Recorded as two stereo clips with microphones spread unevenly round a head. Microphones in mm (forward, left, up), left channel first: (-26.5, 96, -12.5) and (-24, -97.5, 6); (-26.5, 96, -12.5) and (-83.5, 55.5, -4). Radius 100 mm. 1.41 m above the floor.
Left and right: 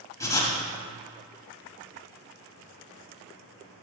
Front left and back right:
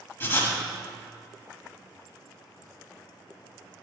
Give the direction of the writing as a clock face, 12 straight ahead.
11 o'clock.